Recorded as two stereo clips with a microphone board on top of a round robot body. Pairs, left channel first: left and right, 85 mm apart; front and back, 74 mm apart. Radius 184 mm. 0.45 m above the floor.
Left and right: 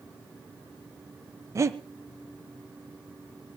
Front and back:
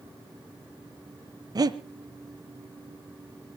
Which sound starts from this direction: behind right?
Breathing, at 1.6 s.